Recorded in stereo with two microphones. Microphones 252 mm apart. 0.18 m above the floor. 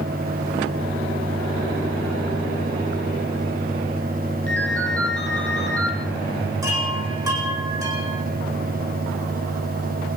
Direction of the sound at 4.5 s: 5° left (ahead or behind).